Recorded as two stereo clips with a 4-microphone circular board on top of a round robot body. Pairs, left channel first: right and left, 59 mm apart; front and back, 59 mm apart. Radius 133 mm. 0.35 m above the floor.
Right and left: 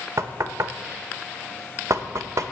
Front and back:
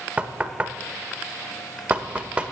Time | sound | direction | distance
0.2 | knocking | 110° left | 1.0 m